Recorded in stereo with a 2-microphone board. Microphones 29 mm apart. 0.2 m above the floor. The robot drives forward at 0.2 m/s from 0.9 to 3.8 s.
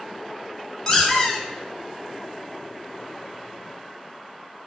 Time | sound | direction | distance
0.9 | a squeak | 25° left (ahead or behind) | 0.6 m